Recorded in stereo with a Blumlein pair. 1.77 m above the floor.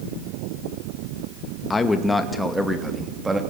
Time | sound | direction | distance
1.7 | a man speaking | 15° left | 2 m